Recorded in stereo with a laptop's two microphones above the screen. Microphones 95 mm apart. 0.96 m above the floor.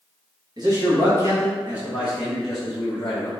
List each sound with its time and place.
0.6 s a man speaking: 45° right (ahead or behind), 1.5 m; by 3.3 s 25° left (ahead or behind), 1.2 m